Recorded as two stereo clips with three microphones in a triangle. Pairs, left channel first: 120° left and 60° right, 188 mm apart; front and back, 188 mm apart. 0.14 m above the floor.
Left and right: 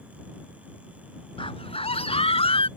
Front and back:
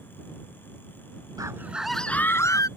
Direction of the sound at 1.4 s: 135° left.